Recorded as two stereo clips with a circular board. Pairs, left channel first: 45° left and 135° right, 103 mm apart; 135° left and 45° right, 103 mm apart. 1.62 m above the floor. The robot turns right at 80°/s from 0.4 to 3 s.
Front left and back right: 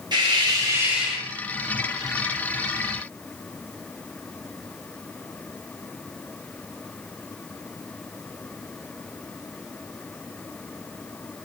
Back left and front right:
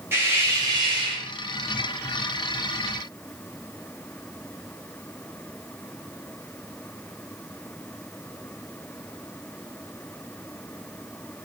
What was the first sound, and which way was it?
A hiss, 105° right.